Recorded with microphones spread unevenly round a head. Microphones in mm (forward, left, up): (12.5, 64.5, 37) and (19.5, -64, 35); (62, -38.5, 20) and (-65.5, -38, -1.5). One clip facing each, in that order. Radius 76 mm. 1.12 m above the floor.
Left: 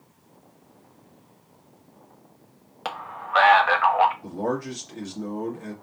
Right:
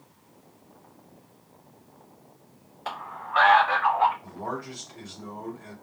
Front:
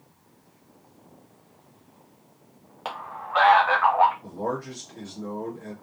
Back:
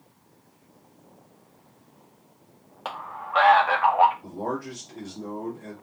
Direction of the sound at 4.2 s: 100° left.